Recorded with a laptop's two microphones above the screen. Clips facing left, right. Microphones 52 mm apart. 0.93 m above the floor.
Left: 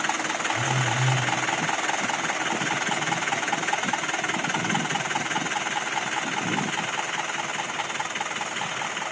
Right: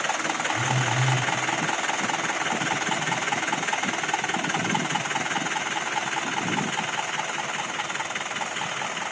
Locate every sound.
0.5 s a phone buzzing: 10° left (ahead or behind), 7 m